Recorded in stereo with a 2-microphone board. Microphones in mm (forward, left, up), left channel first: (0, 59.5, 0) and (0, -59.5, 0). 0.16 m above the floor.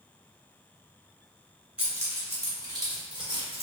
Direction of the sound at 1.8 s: 10° right (ahead or behind).